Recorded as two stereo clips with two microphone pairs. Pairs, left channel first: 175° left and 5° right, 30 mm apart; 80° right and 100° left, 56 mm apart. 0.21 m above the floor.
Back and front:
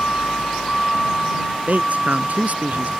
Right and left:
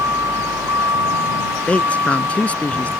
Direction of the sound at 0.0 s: 125° left.